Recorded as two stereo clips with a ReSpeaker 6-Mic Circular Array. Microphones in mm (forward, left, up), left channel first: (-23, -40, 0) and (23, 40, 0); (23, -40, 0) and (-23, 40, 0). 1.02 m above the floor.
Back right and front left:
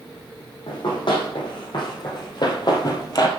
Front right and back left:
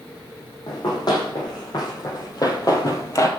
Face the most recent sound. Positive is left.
turn(degrees=-100)